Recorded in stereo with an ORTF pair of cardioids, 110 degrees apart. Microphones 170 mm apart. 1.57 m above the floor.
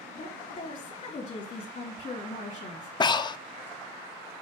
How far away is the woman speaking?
About 3 m.